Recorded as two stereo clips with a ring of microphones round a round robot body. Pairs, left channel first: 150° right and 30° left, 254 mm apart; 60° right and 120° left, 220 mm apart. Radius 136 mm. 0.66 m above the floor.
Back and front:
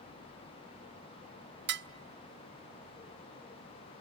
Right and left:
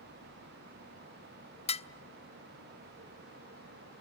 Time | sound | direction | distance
1.7 | dishes clattering | 5° right | 0.6 m